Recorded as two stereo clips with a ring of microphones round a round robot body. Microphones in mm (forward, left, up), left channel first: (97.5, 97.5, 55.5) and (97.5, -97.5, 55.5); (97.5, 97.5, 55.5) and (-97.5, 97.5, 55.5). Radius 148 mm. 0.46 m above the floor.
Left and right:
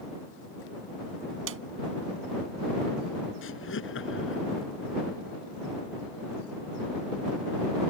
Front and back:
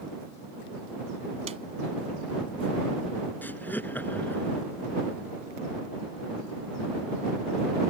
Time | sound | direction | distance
1.5 | a snare drum | 115° right | ?
3.4 | laughter | 80° left | ?